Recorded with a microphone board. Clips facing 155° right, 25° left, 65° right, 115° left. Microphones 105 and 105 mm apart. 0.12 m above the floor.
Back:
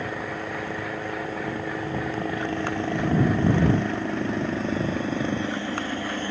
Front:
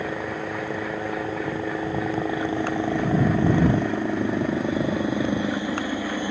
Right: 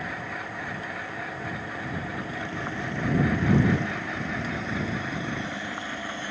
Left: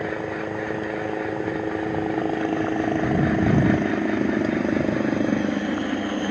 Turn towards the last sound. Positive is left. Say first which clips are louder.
# front 2 dB, left 8 dB
turn(degrees=100)